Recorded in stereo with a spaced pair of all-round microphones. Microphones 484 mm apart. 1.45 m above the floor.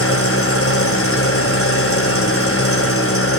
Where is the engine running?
25° left (ahead or behind), 3.5 m.